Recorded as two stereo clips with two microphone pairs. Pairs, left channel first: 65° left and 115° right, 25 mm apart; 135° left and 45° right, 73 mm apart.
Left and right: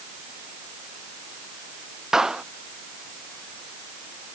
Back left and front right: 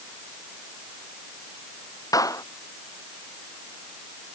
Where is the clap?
175° left.